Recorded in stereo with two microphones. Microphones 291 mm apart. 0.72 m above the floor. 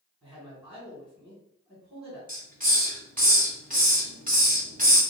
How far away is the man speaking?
About 2 m.